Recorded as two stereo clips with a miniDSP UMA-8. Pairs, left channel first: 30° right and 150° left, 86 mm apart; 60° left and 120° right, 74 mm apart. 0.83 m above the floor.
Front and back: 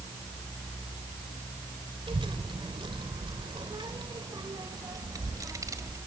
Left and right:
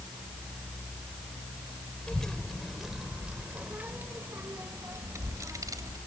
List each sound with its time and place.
2.1 s a child speaking: 140° left, 1.8 m; by 6.0 s 160° right, 2.5 m